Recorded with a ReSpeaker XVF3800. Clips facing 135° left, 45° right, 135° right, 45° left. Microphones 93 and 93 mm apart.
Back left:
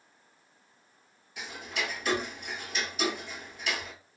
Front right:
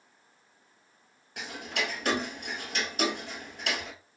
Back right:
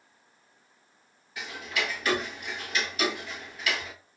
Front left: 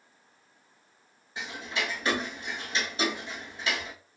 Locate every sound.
1.4 s ticking: 20° right, 0.7 m